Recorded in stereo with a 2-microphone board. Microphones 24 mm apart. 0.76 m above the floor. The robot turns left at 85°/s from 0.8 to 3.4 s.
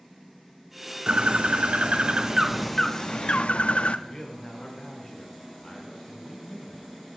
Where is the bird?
45° right, 0.6 m; by 4.0 s 115° left, 0.6 m.